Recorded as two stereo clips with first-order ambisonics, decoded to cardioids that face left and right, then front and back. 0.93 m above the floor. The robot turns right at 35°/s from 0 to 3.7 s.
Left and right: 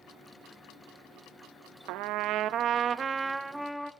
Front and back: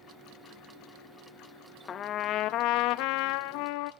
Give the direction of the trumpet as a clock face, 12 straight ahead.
2 o'clock.